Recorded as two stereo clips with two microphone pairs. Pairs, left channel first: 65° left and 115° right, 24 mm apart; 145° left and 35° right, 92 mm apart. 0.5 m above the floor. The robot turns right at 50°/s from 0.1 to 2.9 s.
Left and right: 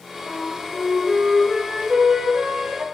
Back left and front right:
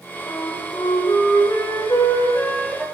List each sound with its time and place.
0.3 s a flute: 110° left, 2 m; by 2.9 s 120° right, 2 m